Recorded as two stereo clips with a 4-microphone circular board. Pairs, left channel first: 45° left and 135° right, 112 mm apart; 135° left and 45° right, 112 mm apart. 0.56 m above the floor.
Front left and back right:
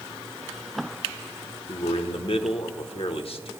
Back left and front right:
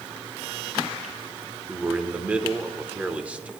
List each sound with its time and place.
1.7 s a man speaking: 30° left, 1.1 m